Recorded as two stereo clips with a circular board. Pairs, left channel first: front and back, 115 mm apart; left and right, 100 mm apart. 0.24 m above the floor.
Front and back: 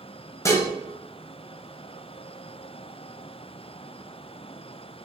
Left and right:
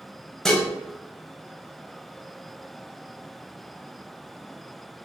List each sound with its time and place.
0.5 s dishes clattering: 10° left, 0.6 m